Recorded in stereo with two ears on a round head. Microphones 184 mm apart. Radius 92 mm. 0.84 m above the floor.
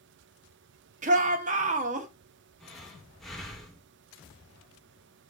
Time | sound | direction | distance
1.0 | a shout | 40° right (ahead or behind) | 1.5 m
2.6 | breathing | centre (ahead or behind) | 2.0 m